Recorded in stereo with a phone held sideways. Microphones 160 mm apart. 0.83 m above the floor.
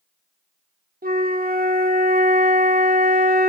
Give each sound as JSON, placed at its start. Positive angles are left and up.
{"t": 1.0, "sound": "a flute", "side_deg": -70, "distance_m": 0.8}